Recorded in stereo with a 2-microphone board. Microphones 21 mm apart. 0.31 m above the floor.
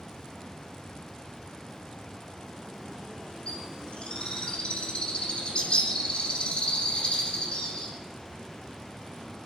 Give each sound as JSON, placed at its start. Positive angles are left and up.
{"t": 3.5, "sound": "a bird", "side_deg": 40, "distance_m": 3.5}